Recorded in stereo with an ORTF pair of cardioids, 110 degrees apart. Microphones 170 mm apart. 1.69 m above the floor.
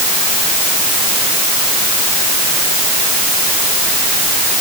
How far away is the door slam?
I don't hear a door slam.